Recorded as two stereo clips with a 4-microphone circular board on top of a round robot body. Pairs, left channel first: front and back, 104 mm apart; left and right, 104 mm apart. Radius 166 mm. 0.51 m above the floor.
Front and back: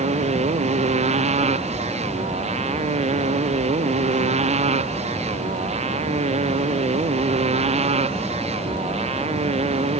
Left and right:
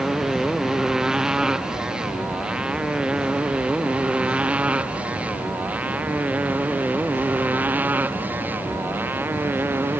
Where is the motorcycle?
175° right; by 10.0 s 160° right.